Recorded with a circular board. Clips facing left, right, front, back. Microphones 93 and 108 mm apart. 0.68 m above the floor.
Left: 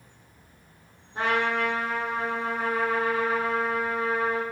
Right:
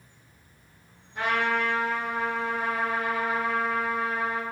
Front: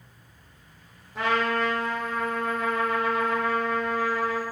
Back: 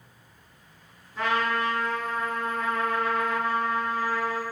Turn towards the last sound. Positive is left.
turn(degrees=30)